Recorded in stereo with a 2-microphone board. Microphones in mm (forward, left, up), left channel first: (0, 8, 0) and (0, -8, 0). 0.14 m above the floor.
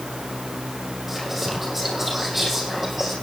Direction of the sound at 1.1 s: Centre (ahead or behind).